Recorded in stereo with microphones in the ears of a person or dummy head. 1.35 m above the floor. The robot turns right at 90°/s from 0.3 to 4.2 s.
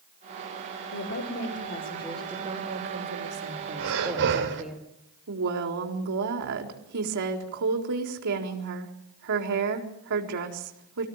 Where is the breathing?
100° right, 3 m; by 4.6 s 60° right, 3 m.